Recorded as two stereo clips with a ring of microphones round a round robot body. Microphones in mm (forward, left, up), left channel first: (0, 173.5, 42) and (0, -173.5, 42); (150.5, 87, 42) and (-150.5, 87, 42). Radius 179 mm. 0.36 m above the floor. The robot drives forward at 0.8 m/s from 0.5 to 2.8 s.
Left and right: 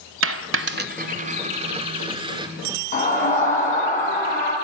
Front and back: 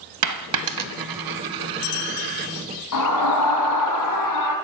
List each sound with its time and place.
0.2 s a dropped coin: 145° right, 0.9 m; by 2.5 s 170° right, 2.5 m
2.9 s a scream: 20° left, 3.5 m